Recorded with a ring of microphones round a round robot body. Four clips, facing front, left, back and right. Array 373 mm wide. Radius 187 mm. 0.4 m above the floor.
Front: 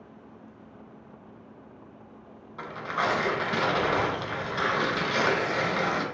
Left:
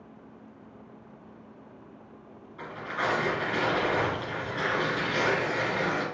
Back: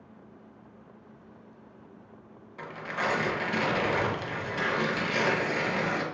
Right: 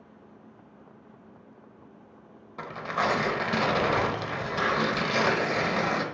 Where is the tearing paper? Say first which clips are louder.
Right 3 dB, front 3 dB; 80° right, 0.6 m.